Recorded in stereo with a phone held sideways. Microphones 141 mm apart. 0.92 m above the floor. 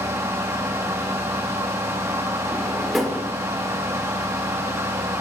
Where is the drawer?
Centre (ahead or behind), 1.6 m.